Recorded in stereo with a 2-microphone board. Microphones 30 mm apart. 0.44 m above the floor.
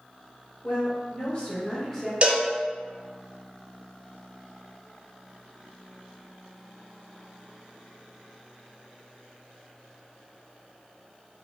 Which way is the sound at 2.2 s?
40° right (ahead or behind).